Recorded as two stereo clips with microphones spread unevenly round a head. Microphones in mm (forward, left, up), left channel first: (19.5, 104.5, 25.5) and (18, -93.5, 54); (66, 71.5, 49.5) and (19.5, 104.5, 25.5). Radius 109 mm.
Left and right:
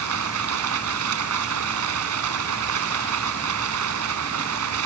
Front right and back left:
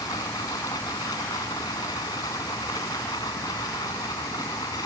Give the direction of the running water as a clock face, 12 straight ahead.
3 o'clock.